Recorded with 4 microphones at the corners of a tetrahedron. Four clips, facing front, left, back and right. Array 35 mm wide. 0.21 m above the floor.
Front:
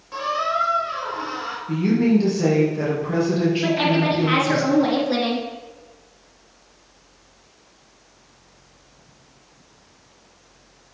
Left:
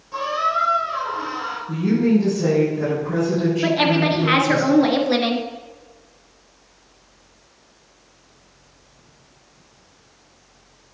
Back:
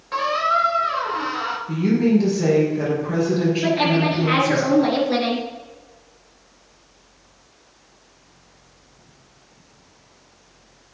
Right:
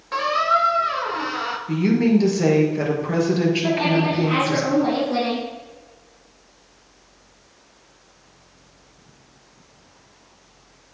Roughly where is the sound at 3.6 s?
Left.